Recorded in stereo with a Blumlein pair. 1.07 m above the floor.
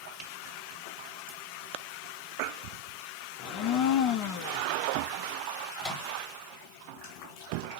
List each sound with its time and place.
3.4 s a blender: 35° left, 0.8 m
5.8 s a microwave: 15° left, 1.7 m